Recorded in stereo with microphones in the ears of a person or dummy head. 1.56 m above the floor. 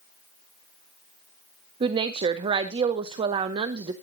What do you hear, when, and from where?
1.8 s a woman speaking: 25° right (ahead or behind), 0.6 m